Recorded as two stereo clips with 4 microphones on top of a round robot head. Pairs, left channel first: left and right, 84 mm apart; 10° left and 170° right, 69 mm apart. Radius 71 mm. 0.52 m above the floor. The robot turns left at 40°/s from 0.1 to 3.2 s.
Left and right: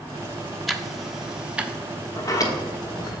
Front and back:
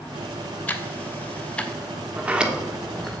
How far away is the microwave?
No microwave in this recording.